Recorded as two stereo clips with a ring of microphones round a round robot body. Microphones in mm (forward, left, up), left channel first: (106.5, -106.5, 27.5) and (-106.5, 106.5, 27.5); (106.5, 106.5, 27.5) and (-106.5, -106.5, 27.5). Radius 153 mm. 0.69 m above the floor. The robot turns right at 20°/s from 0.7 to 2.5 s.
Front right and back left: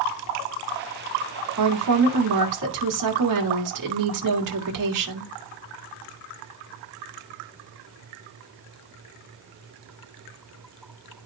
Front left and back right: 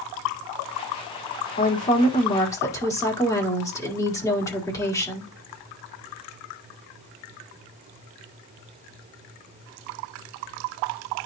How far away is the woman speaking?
About 2.0 m.